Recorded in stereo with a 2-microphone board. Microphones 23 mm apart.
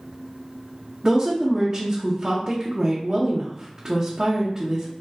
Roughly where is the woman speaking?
Right.